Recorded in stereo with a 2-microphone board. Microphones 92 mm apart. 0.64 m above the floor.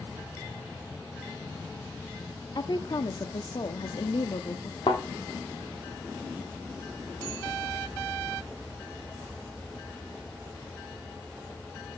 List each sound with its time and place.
2.5 s a woman speaking: 50° left (ahead or behind), 0.8 m
4.9 s a thud: 60° left (ahead or behind), 1.9 m